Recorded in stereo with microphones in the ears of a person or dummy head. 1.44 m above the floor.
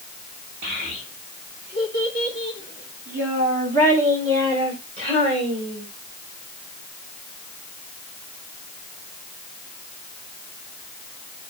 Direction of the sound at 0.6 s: 60° right (ahead or behind).